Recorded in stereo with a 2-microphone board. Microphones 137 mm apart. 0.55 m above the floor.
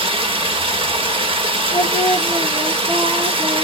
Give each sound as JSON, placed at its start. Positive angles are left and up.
{"t": 0.0, "sound": "running water", "side_deg": -40, "distance_m": 0.8}
{"t": 1.7, "sound": "singing", "side_deg": -75, "distance_m": 2.0}